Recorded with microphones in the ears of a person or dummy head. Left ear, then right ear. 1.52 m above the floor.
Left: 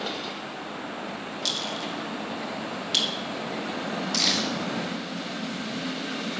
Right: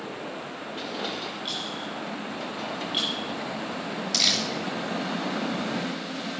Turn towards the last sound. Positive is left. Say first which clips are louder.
# right 2 dB
turn(degrees=-10)  # may be behind; listen again after turning